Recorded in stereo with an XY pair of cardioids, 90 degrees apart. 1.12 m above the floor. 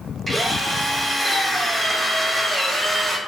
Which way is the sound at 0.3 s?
15° right.